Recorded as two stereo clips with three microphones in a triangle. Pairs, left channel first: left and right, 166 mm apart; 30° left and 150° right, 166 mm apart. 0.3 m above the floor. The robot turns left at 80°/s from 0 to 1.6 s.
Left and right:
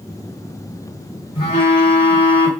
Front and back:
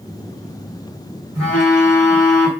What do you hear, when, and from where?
1.4 s a phone buzzing: 120° left, 2.5 m; by 2.5 s 100° left, 2.5 m